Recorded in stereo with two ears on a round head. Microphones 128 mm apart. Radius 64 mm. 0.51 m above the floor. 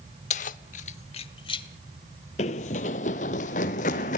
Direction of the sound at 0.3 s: 50° left (ahead or behind).